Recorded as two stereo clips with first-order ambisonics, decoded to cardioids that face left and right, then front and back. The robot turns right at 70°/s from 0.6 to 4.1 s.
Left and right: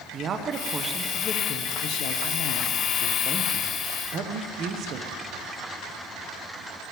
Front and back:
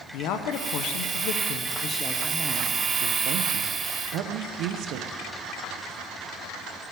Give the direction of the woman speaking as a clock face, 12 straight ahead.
1 o'clock.